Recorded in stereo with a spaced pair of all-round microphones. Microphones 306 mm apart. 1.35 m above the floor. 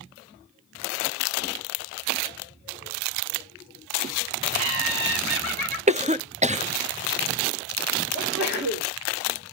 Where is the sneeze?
60° right (ahead or behind), 4.5 m.